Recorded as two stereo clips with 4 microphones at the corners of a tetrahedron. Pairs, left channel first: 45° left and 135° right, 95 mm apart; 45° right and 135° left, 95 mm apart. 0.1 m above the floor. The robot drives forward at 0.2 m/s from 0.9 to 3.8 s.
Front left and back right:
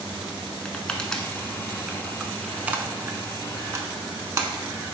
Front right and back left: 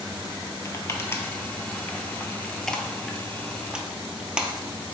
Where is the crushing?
25° right, 0.6 m; by 4.5 s 155° right, 0.6 m.